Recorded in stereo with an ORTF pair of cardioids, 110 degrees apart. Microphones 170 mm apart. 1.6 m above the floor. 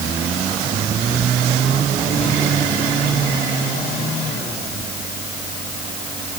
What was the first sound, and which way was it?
Only background noise.